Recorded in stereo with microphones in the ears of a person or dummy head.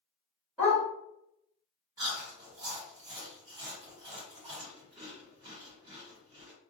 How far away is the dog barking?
About 1.5 m.